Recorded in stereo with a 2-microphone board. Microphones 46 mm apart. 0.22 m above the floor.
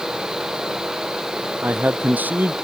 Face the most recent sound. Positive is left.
turn(degrees=-40)  # may be behind; listen again after turning